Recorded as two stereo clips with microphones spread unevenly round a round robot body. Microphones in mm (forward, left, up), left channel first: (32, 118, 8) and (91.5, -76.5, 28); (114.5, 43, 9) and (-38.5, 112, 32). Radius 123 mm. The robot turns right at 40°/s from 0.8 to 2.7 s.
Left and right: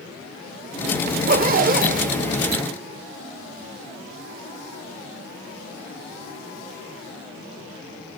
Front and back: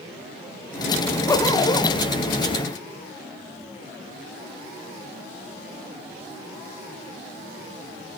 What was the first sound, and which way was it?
A zipper, 85° right.